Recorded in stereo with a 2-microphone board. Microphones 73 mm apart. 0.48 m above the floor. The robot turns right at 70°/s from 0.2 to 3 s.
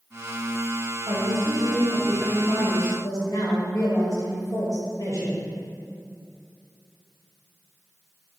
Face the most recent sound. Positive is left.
turn(degrees=65)